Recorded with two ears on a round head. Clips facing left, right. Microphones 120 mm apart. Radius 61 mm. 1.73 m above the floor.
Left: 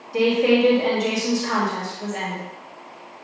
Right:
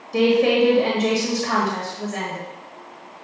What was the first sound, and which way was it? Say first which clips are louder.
A woman speaking: right 1 dB; 75° right (ahead or behind).